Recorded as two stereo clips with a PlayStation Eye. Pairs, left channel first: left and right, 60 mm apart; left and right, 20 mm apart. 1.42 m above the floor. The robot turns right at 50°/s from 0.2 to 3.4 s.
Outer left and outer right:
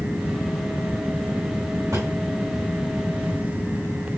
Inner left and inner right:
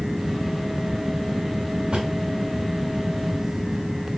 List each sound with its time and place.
1.9 s a drawer: 60° right (ahead or behind), 4.5 m; by 2.1 s 55° right (ahead or behind), 4.5 m